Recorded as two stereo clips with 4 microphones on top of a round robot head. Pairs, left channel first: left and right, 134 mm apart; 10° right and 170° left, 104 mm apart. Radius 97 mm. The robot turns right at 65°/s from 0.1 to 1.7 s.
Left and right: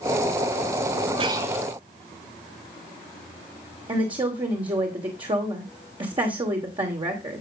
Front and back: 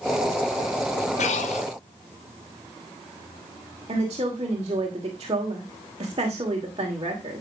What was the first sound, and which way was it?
Breathing, 30° right.